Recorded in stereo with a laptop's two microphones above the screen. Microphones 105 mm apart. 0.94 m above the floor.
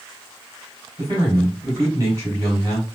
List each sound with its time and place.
1.0 s a man speaking: 35° right (ahead or behind), 3 m